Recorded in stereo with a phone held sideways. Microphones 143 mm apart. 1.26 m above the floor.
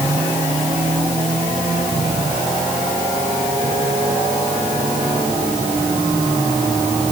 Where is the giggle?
No giggle in this recording.